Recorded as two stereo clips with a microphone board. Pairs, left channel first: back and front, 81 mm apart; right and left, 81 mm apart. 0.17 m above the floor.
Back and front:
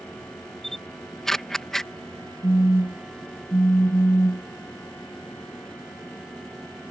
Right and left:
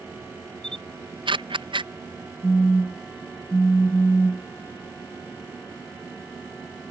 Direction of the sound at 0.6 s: 95° left.